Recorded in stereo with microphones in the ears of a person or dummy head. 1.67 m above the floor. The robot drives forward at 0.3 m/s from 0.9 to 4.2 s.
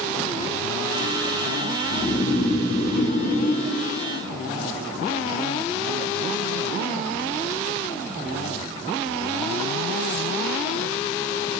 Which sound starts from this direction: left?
Snoring, at 1.9 s.